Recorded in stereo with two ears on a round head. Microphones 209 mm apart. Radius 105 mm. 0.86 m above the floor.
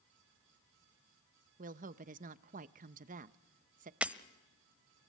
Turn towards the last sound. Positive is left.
turn(degrees=-5)  # may be behind; listen again after turning